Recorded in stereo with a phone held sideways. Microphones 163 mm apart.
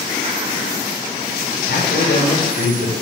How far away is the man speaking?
About 7.5 m.